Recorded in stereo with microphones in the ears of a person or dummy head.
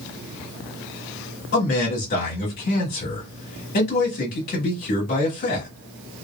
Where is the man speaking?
50° left (ahead or behind), 1.5 m.